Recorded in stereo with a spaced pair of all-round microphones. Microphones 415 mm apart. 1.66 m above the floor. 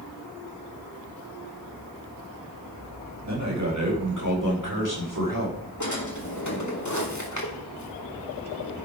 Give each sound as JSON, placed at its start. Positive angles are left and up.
{"t": 3.3, "sound": "a man speaking", "side_deg": -40, "distance_m": 4.5}
{"t": 5.8, "sound": "a drawer", "side_deg": 45, "distance_m": 2.5}